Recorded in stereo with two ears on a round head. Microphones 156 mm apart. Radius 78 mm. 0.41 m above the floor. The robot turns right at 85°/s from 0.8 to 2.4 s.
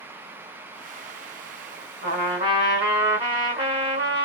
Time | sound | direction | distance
2.0 | a trumpet | 75° right | 1.8 m